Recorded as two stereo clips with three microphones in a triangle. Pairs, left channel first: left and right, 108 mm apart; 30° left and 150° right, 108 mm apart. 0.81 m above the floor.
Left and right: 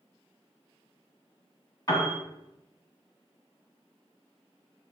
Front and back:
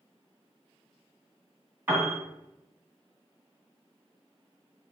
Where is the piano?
145° left, 1.4 m.